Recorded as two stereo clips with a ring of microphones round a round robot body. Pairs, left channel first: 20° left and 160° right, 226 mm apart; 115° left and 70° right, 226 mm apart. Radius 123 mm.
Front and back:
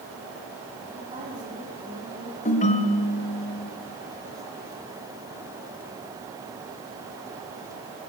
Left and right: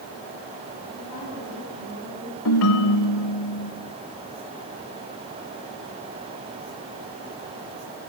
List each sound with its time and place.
0.9 s a woman speaking: 140° left, 6.5 m
2.5 s a ringtone: 85° left, 1.4 m